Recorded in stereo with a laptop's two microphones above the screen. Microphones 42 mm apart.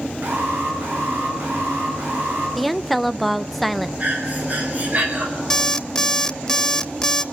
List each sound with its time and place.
0.2 s an alarm: 55° right (ahead or behind), 9.5 m
2.6 s a woman speaking: centre (ahead or behind), 0.7 m
4.0 s breathing: 40° right (ahead or behind), 4.5 m
5.5 s an alarm clock: 15° left (ahead or behind), 0.7 m